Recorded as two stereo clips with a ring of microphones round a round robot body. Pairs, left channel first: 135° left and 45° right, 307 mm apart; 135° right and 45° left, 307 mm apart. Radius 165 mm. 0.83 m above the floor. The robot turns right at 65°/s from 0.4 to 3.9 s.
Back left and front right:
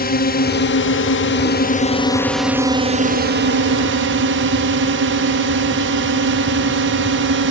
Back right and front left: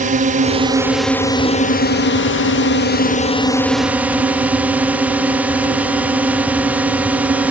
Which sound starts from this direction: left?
A drone, at 0.0 s.